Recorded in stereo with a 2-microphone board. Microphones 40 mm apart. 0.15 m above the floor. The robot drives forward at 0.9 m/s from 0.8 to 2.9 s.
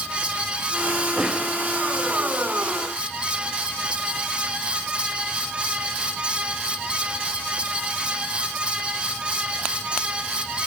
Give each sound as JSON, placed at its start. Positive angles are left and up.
{"t": 1.2, "sound": "a snare drum", "side_deg": -20, "distance_m": 6.5}